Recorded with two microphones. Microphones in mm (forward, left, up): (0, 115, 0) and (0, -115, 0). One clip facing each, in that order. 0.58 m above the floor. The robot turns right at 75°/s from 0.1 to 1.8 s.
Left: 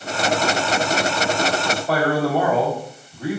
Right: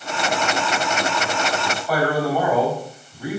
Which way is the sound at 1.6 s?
10° left (ahead or behind).